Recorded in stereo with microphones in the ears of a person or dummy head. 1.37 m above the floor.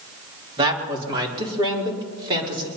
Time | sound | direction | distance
0.6 | a man speaking | 25° right (ahead or behind) | 2.5 m